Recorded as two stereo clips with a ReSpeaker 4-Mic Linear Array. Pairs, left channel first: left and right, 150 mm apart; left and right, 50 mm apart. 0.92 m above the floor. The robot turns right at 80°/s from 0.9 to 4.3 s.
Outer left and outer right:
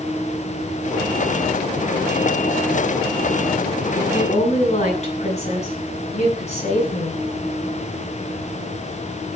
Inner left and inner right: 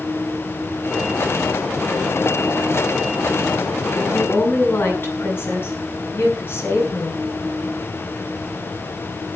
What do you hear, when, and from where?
3.9 s a woman speaking: 15° left (ahead or behind), 7.5 m; by 7.2 s 45° left (ahead or behind), 7.5 m